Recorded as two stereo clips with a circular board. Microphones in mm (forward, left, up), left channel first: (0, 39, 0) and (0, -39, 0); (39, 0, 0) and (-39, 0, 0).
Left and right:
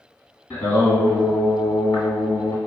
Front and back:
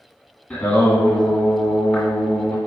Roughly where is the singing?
Ahead left.